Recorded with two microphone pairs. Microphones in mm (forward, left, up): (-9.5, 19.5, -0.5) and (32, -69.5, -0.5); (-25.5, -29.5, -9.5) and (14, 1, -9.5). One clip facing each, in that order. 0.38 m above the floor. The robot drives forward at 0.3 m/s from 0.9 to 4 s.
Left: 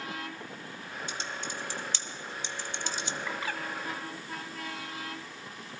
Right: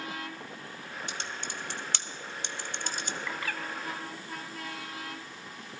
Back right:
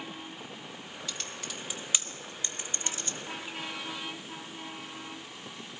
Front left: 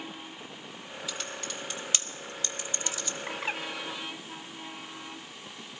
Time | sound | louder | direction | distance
1.1 | typing on a keyboard | left 2 dB, front left 3 dB | 50° right | 0.9 m
3.3 | a bird | left 1 dB, front left 9 dB | 45° left | 0.7 m